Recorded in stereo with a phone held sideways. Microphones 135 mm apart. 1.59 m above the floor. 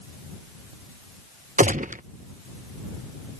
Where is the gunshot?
70° right (ahead or behind).